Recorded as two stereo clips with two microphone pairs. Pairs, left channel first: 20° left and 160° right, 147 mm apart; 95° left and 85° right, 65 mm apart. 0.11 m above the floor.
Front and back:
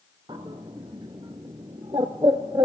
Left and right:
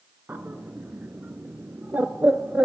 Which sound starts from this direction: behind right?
A bird, at 0.3 s.